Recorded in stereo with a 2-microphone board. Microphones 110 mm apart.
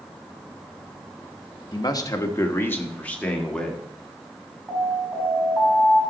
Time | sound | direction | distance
1.7 | a man speaking | 40° left (ahead or behind) | 1.0 m
4.7 | an alarm | centre (ahead or behind) | 6 m